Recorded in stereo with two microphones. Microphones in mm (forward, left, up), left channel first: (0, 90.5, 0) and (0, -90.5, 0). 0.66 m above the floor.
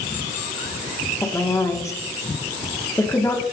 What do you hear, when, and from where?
1.2 s a woman speaking: 15° left (ahead or behind), 1.5 m